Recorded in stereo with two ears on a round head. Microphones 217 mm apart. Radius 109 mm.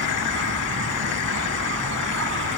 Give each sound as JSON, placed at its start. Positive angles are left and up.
{"t": 0.0, "sound": "an insect", "side_deg": -55}